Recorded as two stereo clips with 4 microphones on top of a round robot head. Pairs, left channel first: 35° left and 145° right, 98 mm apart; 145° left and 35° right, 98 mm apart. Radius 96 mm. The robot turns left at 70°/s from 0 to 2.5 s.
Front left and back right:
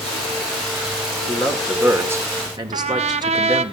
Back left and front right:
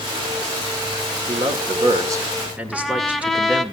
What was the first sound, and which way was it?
A man speaking, 25° right.